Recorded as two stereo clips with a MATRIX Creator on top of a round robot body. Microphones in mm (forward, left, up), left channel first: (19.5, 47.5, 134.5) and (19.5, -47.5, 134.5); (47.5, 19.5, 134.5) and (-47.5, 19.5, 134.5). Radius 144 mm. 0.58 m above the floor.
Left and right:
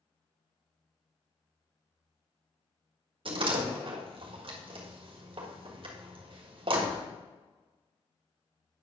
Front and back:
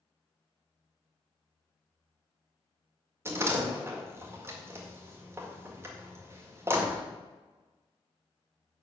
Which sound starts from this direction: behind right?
A door slam, at 3.2 s.